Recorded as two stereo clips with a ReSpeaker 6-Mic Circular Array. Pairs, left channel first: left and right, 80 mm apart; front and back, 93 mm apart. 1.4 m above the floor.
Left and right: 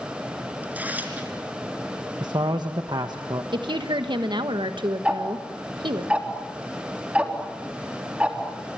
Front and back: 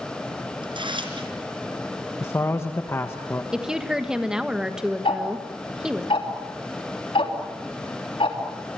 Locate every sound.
0.6 s tearing paper: 155° right, 3.5 m
2.2 s a man speaking: 60° right, 1.3 m
3.5 s a woman speaking: 95° right, 1.4 m
5.0 s ticking: 15° right, 3 m